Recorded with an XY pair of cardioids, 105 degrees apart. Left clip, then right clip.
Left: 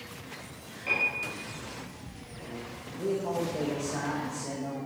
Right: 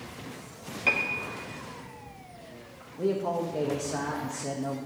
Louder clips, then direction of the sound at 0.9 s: Right 1 dB; 70° right.